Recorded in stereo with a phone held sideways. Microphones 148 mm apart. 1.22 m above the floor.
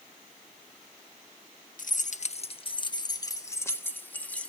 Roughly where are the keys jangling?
Left.